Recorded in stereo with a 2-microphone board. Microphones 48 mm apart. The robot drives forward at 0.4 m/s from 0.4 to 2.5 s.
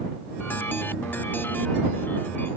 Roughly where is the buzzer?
No buzzer in this recording.